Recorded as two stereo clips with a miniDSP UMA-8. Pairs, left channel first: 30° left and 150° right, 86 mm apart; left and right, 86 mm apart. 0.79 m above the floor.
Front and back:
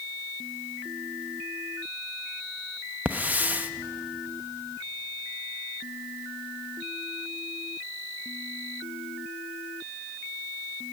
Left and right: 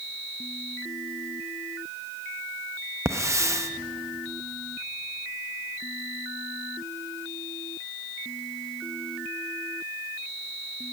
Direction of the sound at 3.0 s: 95° right.